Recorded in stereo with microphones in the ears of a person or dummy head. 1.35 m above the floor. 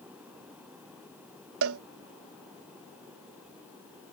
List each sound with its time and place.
1.6 s a cowbell: 65° right (ahead or behind)